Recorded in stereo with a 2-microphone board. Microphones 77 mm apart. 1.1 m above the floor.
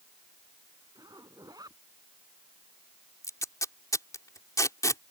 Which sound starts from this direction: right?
A zipper, at 0.9 s.